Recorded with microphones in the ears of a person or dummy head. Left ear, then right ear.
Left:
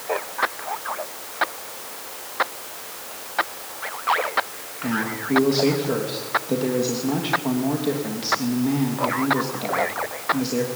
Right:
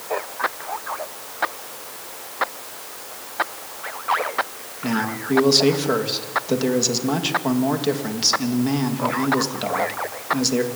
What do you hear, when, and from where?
4.8 s a man speaking: 40° right (ahead or behind), 3 m